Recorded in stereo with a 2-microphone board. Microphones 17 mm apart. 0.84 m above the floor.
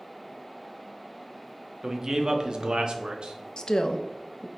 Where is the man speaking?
30° right (ahead or behind), 0.9 m; by 3.4 s 75° right (ahead or behind), 1.2 m.